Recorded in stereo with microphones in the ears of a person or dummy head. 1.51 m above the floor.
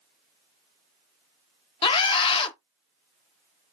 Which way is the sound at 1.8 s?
30° left (ahead or behind).